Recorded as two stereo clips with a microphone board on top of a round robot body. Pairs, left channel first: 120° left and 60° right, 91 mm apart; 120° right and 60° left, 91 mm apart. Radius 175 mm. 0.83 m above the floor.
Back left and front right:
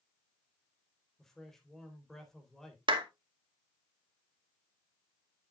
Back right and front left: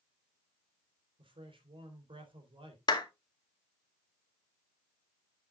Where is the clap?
80° right, 2 m.